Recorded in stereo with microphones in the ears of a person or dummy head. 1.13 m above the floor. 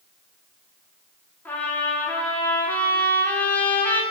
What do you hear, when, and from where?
1.4 s a trumpet: 5° left (ahead or behind), 0.7 m